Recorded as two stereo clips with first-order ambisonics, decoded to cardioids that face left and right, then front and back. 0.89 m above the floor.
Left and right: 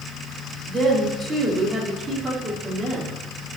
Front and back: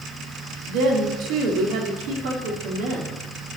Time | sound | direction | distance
0.7 | a woman speaking | 170° right | 1.8 m